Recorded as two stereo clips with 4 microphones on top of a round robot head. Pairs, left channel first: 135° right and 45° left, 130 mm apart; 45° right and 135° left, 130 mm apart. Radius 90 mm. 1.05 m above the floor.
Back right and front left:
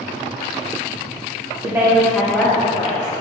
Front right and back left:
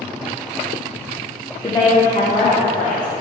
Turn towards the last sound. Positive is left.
turn(degrees=-80)